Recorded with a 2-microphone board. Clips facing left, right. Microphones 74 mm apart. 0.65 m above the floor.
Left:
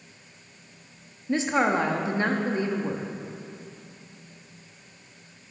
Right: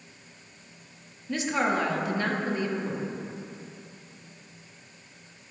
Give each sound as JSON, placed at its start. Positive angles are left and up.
{"t": 1.3, "sound": "a woman speaking", "side_deg": 25, "distance_m": 0.7}